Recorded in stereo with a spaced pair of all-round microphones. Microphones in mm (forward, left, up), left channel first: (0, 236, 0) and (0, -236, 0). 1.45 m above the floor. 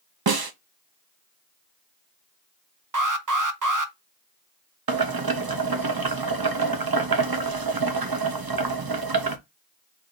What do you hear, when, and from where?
0.3 s a snare drum: 50° right (ahead or behind), 0.7 m
2.9 s an alarm: 40° right (ahead or behind), 0.8 m
4.9 s boiling: 50° right (ahead or behind), 0.8 m